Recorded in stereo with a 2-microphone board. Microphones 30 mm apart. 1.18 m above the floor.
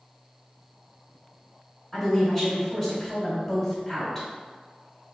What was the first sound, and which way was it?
A woman speaking, centre (ahead or behind).